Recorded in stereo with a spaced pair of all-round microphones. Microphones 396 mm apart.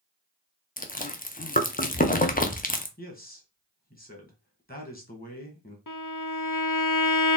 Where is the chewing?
20° left (ahead or behind), 0.6 m.